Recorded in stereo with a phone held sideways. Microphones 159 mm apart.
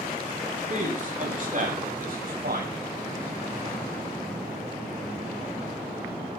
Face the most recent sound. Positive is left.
turn(degrees=-70)  # may be behind; listen again after turning